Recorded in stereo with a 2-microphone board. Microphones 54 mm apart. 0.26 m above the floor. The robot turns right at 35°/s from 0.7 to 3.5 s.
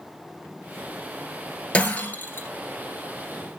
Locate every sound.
1.7 s breaking glass: 20° left (ahead or behind), 2.5 m; by 2.5 s 45° left (ahead or behind), 2.5 m